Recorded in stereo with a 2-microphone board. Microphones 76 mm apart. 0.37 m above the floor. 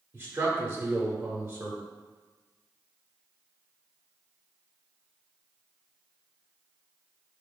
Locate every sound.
0.1 s a man speaking: 25° right (ahead or behind), 1.0 m